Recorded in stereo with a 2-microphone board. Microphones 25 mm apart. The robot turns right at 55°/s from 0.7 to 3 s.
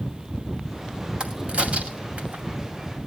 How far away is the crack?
About 2 m.